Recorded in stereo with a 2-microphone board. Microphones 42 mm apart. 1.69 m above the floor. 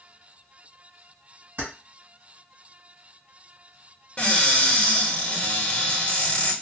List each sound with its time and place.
1.6 s keys jangling: 55° right (ahead or behind), 1.7 m
4.2 s a cupboard door: 30° left (ahead or behind), 1.2 m